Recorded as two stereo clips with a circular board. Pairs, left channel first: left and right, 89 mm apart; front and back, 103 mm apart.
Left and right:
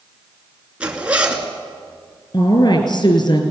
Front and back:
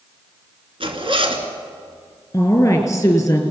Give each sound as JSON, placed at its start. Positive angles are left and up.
{"t": 0.8, "sound": "a zipper", "azimuth_deg": -165, "distance_m": 2.5}
{"t": 2.3, "sound": "a woman speaking", "azimuth_deg": 60, "distance_m": 3.5}